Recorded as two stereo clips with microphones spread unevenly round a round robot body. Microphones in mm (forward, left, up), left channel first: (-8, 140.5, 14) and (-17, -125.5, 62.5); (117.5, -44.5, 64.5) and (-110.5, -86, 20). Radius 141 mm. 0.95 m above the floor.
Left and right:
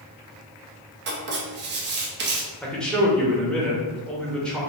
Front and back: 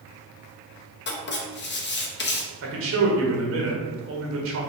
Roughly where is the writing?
Ahead right.